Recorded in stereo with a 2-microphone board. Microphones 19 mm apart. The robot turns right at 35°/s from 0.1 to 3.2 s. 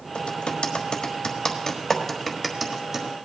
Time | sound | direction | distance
0.1 | typing on a keyboard | 70° left (ahead or behind) | 1.4 m